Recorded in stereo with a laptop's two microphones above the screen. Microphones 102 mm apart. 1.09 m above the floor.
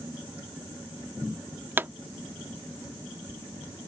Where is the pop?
20° right (ahead or behind).